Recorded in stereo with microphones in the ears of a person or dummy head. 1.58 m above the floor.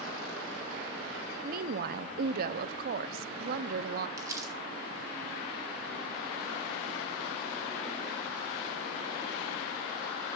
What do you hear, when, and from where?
1.4 s a woman speaking: 60° right (ahead or behind), 0.6 m
4.2 s crumpling: 25° right (ahead or behind), 2.5 m